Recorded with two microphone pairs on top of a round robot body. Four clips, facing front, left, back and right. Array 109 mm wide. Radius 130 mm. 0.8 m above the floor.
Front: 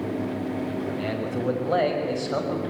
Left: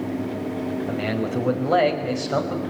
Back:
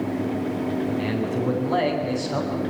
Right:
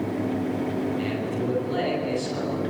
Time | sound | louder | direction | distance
0.9 | a man speaking | left 2 dB, back 3 dB | 70° left | 6 m